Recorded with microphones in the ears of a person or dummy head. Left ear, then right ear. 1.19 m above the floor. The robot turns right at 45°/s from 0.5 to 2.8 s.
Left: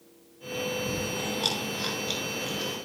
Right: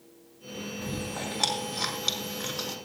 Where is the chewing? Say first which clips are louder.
Left 4 dB; 25° right (ahead or behind), 3.5 m; by 2.8 s 70° right (ahead or behind), 3.5 m.